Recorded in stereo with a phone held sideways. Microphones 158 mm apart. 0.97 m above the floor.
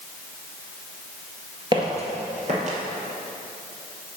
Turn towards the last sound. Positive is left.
turn(degrees=-50)  # may be behind; listen again after turning